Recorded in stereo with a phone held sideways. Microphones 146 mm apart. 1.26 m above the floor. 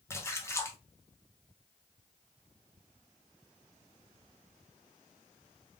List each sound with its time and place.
0.1 s a splash: 20° left (ahead or behind), 0.6 m